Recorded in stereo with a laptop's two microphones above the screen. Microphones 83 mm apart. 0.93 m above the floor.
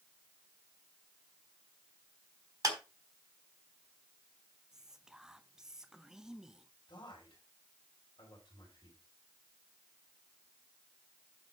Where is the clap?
45° right (ahead or behind), 4 m.